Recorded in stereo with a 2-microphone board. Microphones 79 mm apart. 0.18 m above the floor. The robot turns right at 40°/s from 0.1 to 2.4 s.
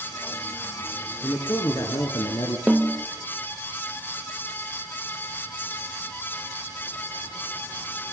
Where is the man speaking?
35° left, 2.5 m; by 2.6 s 80° left, 2.5 m.